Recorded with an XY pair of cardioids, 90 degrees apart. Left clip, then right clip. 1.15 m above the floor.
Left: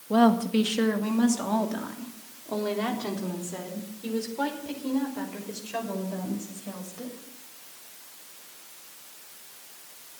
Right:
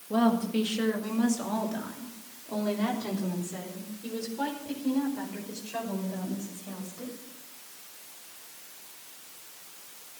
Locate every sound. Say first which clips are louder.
0.1 s a woman speaking: left 5 dB; 45° left, 1.8 m; by 7.1 s 40° left, 6.5 m